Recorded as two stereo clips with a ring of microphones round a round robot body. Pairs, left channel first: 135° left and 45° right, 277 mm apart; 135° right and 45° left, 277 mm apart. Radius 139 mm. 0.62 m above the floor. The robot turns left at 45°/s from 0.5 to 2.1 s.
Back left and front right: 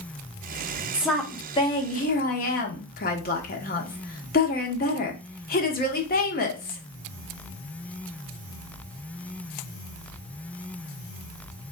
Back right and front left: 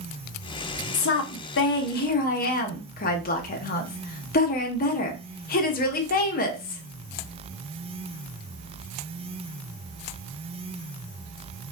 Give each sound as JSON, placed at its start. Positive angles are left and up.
{"t": 0.9, "sound": "a woman speaking", "azimuth_deg": -130, "distance_m": 0.8}